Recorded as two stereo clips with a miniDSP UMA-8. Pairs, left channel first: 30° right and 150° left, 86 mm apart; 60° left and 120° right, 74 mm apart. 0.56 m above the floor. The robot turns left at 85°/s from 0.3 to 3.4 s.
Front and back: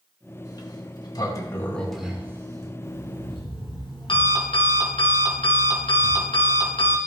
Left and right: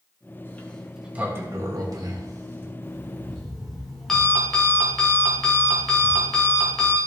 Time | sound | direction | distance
0.5 | a sliding door | 5° left | 1.8 m
2.8 | an alarm clock | 25° left | 3 m